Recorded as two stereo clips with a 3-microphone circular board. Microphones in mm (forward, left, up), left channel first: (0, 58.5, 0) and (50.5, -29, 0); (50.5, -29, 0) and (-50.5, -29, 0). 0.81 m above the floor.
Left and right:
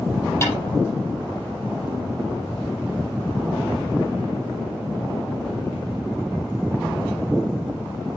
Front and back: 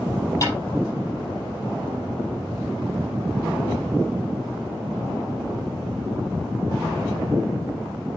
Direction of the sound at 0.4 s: 60° left.